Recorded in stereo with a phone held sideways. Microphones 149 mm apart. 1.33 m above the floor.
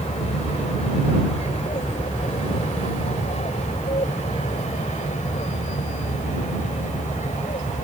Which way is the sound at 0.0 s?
45° left (ahead or behind).